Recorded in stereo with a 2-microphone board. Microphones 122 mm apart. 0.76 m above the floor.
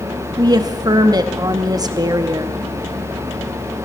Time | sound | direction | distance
0.4 | a woman speaking | 35° right (ahead or behind) | 0.7 m